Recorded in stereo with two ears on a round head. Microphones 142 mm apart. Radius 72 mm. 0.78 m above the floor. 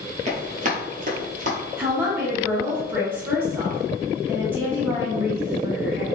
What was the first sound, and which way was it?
Running footsteps, 45° right (ahead or behind).